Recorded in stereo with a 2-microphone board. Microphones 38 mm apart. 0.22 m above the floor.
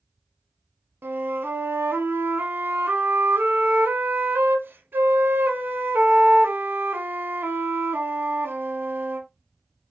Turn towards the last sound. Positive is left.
turn(degrees=-60)  # may be behind; listen again after turning